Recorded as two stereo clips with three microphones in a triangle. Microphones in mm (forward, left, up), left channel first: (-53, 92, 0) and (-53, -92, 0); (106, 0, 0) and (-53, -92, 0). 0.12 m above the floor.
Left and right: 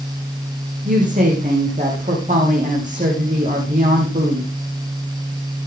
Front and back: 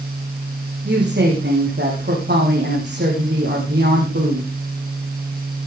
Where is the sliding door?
I don't hear a sliding door.